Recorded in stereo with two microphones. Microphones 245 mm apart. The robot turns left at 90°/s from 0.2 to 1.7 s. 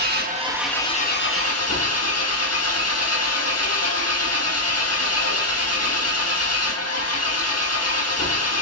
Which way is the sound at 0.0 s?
140° right.